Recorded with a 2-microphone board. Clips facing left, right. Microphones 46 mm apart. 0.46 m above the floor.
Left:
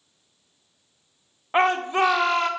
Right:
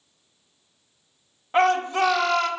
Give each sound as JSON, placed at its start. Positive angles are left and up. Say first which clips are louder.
{"t": 1.5, "sound": "a shout", "louder": "even", "side_deg": 25, "distance_m": 0.8}